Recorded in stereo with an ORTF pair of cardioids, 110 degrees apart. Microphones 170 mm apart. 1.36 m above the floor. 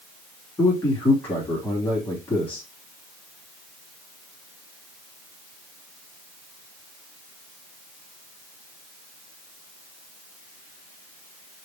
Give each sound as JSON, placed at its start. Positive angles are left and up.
{"t": 0.6, "sound": "a man speaking", "azimuth_deg": 20, "distance_m": 3.0}